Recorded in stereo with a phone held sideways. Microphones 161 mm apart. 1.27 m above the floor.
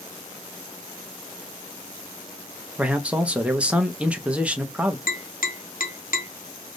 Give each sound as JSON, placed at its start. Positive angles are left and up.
{"t": 2.8, "sound": "a man speaking", "side_deg": -10, "distance_m": 0.6}
{"t": 5.1, "sound": "tapping", "side_deg": 65, "distance_m": 0.9}